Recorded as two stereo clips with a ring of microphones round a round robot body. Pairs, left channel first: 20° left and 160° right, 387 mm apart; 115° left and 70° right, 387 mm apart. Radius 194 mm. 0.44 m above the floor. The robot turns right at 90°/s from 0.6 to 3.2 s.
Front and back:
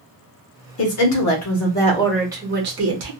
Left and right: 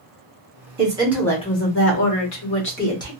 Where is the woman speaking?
15° right, 1.1 m; by 3.1 s 165° right, 1.1 m.